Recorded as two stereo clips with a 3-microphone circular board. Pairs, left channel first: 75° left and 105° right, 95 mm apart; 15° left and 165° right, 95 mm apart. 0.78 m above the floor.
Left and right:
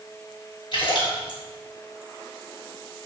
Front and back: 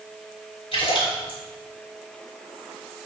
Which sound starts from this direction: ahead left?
A splash, at 0.7 s.